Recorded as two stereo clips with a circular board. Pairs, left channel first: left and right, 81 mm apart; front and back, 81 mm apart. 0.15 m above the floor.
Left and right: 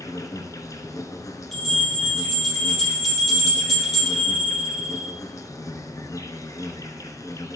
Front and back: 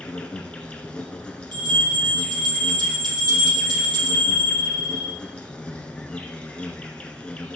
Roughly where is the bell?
Behind.